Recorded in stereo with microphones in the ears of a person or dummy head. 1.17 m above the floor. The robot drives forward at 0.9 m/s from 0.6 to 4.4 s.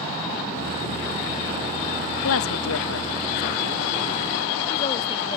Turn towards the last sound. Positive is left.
turn(degrees=30)  # may be behind; listen again after turning